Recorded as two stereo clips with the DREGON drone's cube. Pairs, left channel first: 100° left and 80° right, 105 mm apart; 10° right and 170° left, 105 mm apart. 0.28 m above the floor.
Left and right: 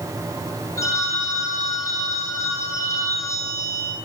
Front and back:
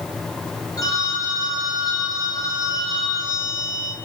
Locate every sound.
0.8 s a phone ringing: 40° left, 2.5 m